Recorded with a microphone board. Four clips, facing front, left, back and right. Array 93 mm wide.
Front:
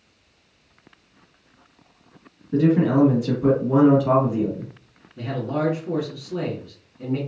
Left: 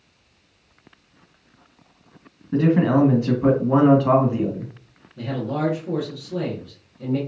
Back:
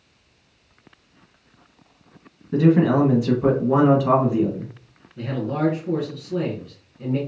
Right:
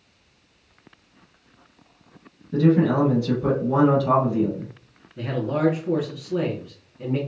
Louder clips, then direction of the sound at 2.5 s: Left 1 dB, back 1 dB; 120° left.